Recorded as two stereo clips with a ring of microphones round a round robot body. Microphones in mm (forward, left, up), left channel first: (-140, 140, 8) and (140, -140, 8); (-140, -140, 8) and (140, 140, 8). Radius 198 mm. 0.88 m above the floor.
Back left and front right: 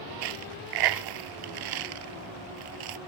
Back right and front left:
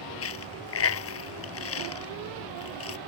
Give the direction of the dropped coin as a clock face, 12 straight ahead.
3 o'clock.